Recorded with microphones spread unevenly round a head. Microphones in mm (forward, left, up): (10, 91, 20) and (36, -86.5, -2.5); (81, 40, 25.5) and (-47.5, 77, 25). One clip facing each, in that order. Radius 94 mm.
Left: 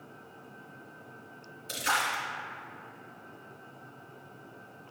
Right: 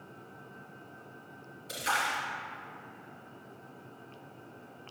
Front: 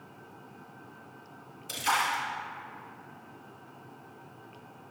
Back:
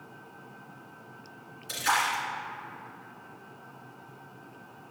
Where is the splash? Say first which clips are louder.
Left 1 dB, back 1 dB; 45° left, 2.5 m.